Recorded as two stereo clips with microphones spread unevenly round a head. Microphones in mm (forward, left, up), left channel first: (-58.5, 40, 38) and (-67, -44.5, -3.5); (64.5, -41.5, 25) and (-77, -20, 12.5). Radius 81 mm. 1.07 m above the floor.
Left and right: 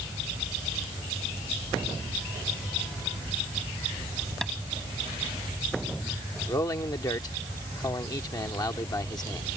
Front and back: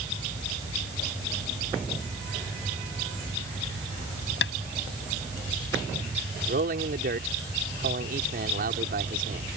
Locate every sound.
4.4 s tapping: straight ahead
6.5 s a man speaking: 135° left